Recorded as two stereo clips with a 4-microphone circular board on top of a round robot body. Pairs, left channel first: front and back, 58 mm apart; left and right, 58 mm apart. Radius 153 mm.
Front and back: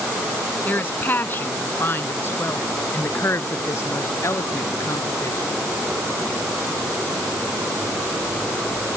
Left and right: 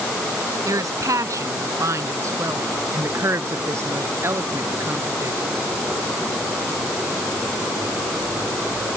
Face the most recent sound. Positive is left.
turn(degrees=-45)